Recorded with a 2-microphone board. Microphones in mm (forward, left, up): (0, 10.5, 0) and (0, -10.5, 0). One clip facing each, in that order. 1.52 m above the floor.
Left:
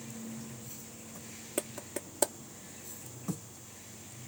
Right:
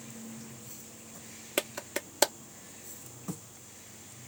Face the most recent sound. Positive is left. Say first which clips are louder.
# right 5 dB
turn(degrees=-75)  # may be behind; listen again after turning